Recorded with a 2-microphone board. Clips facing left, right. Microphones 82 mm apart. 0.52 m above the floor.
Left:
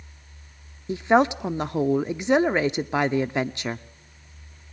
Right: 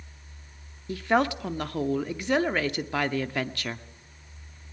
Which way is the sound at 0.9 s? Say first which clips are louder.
Left 5 dB; 20° left (ahead or behind).